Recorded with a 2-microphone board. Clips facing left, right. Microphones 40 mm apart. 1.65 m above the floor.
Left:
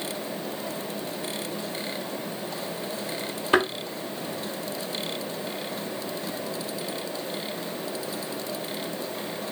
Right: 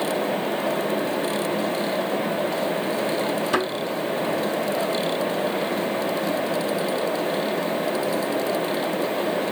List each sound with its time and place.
3.5 s a thud: 30° left (ahead or behind), 2 m